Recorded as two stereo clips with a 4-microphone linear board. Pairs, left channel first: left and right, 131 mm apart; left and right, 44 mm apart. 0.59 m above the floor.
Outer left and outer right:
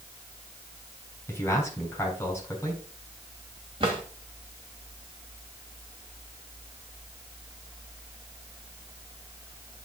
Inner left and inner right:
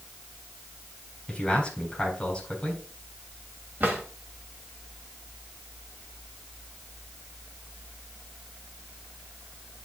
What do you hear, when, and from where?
1.3 s a man speaking: 20° left (ahead or behind), 3.5 m
3.8 s a drawer: 45° right (ahead or behind), 1.8 m